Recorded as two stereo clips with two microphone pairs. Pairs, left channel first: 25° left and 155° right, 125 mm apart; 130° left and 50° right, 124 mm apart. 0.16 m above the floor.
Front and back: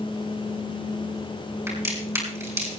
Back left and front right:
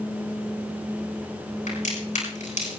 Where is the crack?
140° left, 9 m.